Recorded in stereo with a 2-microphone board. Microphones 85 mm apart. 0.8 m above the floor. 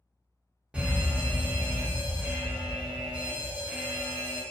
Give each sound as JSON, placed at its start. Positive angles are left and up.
{"t": 0.7, "sound": "an alarm", "side_deg": -15, "distance_m": 0.8}